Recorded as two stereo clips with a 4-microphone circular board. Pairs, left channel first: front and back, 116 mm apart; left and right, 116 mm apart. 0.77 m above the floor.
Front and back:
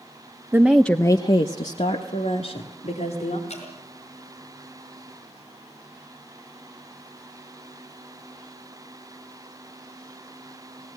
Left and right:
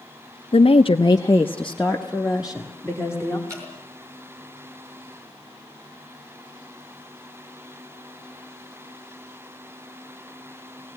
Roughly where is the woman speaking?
Left.